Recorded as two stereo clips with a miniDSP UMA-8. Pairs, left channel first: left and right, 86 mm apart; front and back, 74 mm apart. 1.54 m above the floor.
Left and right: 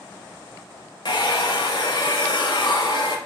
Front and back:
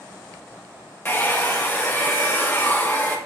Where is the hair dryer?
65° left, 1.0 m.